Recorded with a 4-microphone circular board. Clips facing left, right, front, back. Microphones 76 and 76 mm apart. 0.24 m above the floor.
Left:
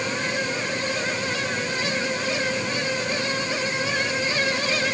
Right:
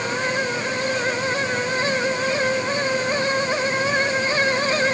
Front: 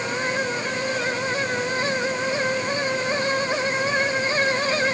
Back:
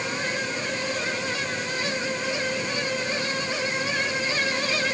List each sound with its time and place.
Only background noise.